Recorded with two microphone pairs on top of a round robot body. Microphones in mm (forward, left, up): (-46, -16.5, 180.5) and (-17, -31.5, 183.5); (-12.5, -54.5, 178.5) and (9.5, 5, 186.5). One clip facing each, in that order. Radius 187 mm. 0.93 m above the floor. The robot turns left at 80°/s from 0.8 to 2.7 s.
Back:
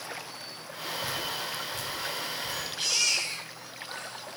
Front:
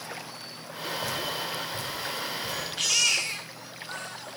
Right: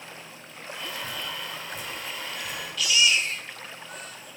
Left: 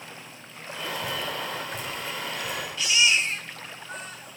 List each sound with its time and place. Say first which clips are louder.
1.0 s dripping: front 2 dB, left 4 dB; 100° left, 4.5 m; by 2.6 s 25° right, 4.5 m
2.8 s a baby crying: front 3 dB, even; 5° left, 1.0 m